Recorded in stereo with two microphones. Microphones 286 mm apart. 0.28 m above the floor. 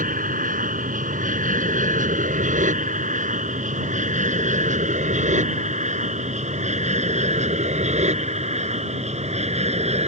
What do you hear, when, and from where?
0.0 s an aircraft: 30° right (ahead or behind); by 10.1 s 20° right (ahead or behind)